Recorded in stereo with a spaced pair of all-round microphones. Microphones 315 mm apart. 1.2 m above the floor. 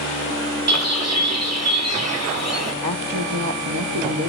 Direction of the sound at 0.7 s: 55° right (ahead or behind).